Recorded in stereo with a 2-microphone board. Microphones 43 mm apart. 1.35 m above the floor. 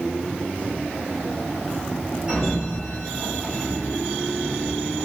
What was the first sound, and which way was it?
A sliding door, 15° right (ahead or behind).